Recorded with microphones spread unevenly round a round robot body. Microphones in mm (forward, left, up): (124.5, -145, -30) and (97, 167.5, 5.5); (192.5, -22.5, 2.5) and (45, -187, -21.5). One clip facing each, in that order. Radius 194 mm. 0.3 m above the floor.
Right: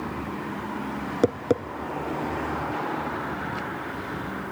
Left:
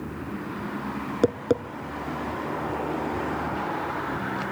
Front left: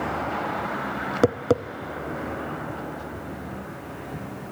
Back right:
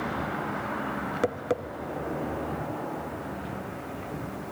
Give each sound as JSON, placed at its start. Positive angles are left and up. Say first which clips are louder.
{"t": 1.2, "sound": "tapping", "louder": "even, front left 8 dB", "azimuth_deg": 0, "distance_m": 0.8}